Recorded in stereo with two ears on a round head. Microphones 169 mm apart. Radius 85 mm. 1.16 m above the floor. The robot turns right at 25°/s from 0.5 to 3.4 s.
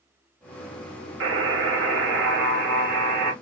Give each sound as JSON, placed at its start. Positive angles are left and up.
{"t": 1.2, "sound": "a buzzer", "azimuth_deg": -100, "distance_m": 1.8}